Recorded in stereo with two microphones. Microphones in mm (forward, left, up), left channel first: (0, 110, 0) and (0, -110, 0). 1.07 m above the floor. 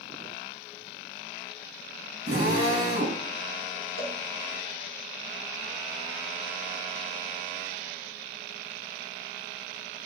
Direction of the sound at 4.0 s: 90° right.